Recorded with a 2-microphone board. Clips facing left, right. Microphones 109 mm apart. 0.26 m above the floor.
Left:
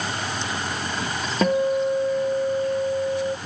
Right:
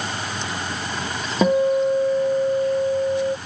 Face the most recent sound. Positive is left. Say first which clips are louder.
# right 3 dB
turn(degrees=-10)  # may be behind; listen again after turning